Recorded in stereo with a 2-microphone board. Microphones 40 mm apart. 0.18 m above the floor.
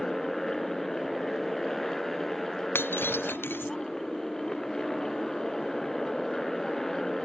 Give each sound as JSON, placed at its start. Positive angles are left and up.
{"t": 0.0, "sound": "a motorcycle", "side_deg": 5}
{"t": 2.8, "sound": "breaking glass", "side_deg": 75}